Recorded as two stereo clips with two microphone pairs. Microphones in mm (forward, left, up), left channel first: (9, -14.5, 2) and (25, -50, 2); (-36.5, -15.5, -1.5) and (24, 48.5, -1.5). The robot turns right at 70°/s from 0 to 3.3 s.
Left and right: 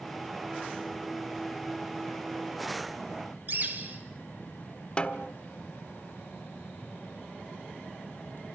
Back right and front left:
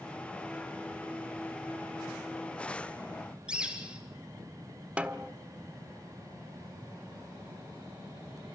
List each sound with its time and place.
3.5 s a bird: 30° right, 3.5 m
5.0 s a snare drum: 105° left, 1.2 m